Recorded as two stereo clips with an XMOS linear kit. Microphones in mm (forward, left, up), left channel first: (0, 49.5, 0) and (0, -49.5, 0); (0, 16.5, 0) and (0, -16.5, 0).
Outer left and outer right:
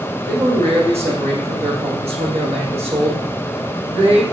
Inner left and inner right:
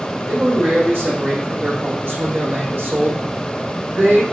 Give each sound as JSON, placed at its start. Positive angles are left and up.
{"t": 0.3, "sound": "a man speaking", "side_deg": -75, "distance_m": 7.0}